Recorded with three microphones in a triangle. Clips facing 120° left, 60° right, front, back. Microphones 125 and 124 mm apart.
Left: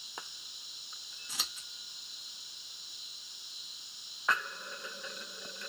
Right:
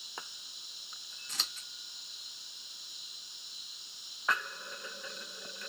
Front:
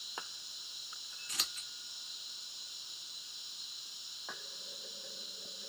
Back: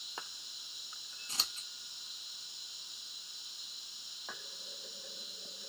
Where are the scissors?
170° right, 0.6 m.